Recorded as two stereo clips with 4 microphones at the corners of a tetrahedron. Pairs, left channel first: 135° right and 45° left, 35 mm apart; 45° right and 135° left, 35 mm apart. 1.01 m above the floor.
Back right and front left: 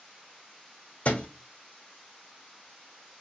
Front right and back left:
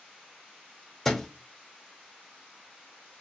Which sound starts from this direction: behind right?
A thud, at 1.1 s.